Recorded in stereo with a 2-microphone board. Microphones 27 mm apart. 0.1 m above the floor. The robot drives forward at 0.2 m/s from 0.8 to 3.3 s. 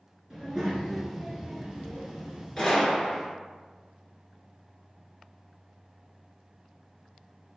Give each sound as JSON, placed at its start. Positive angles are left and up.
{"t": 0.3, "sound": "a child speaking", "side_deg": -20, "distance_m": 1.1}
{"t": 2.6, "sound": "a gunshot", "side_deg": 10, "distance_m": 1.0}